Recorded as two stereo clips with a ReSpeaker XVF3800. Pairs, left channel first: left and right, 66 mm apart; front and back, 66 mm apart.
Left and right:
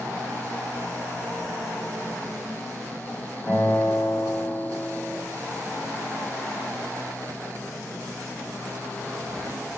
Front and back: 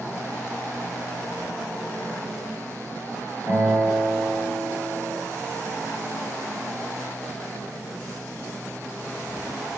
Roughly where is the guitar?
Ahead.